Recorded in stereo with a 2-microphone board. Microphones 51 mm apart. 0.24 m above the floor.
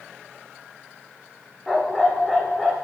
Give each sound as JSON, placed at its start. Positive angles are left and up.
{"t": 1.7, "sound": "a dog barking", "side_deg": 10, "distance_m": 7.5}